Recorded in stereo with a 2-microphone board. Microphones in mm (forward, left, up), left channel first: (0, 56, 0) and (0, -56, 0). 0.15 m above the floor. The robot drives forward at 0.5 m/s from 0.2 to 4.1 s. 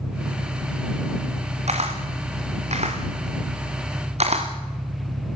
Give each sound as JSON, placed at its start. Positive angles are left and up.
{"t": 0.0, "sound": "an engine running", "side_deg": -60, "distance_m": 2.0}
{"t": 1.7, "sound": "a camera shutter", "side_deg": -85, "distance_m": 4.0}